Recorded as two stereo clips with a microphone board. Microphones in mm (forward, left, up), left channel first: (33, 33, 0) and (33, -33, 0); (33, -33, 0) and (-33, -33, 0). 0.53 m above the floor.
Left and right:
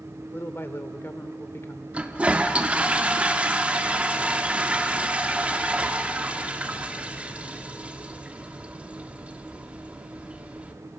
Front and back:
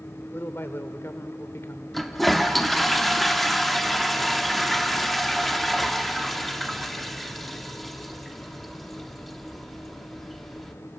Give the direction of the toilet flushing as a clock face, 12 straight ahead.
3 o'clock.